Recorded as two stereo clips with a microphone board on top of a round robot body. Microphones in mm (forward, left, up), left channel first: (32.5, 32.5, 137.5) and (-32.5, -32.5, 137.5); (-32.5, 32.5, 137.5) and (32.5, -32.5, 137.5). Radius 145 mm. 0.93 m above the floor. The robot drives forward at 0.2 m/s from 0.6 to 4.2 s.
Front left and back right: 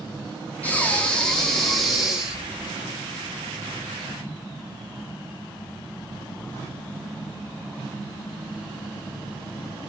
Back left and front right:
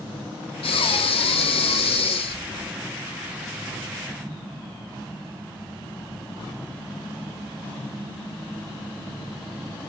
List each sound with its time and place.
0.6 s breathing: 120° left, 0.7 m; by 2.7 s 140° left, 0.9 m